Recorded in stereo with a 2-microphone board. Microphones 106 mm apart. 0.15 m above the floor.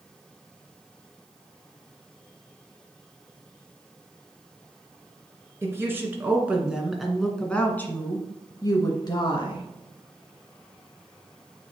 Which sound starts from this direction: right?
A woman speaking, at 5.6 s.